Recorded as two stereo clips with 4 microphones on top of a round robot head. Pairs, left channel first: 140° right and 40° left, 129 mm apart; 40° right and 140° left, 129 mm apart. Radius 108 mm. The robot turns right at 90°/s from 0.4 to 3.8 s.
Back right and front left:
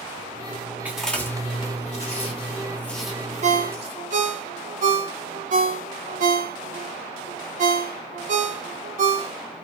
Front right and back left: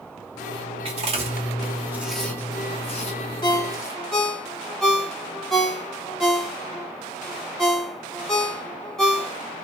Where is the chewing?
115° left, 1.5 m; by 4.0 s 20° left, 1.5 m.